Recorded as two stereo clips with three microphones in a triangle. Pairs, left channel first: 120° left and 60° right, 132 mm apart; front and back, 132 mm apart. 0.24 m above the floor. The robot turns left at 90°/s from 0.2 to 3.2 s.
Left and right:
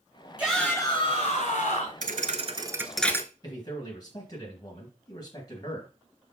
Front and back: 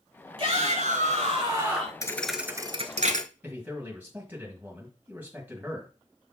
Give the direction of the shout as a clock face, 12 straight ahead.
5 o'clock.